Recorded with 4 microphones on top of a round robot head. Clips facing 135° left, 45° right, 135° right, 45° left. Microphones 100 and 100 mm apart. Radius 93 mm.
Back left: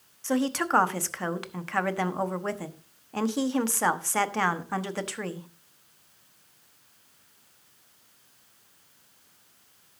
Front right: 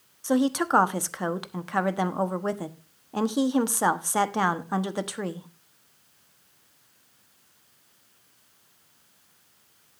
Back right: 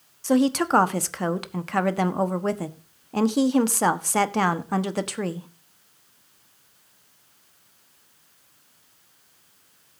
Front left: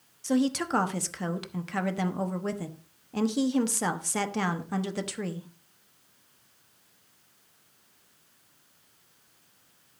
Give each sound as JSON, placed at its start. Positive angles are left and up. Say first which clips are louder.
{"t": 0.2, "sound": "a woman speaking", "louder": "front right 3 dB, back right 6 dB", "azimuth_deg": -115, "distance_m": 1.2}